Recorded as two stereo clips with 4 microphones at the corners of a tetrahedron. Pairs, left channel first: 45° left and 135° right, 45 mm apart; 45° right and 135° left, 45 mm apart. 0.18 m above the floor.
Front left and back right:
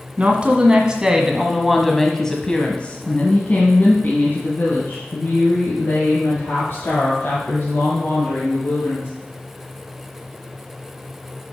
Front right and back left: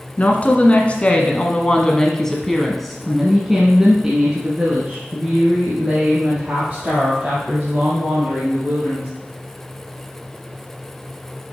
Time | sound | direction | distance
0.2 | a woman speaking | 85° right | 1.6 m